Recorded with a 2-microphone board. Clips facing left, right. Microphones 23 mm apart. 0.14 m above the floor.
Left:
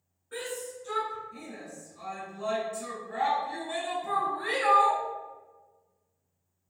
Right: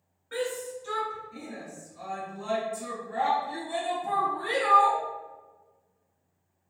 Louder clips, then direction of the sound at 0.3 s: Right 5 dB; 35° right (ahead or behind).